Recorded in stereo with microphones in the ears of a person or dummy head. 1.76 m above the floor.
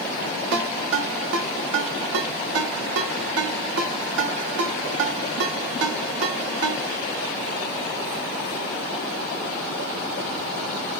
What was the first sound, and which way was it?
A ringtone, 70° right (ahead or behind).